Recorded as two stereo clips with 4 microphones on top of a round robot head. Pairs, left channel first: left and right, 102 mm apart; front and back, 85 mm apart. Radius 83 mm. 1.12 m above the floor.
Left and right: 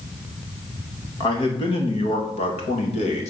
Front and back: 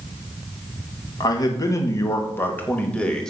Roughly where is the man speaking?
Ahead left.